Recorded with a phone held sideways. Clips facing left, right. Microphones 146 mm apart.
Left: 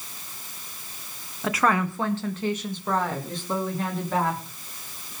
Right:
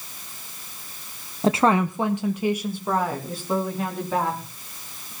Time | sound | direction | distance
1.4 | a woman speaking | 35° right (ahead or behind) | 0.7 m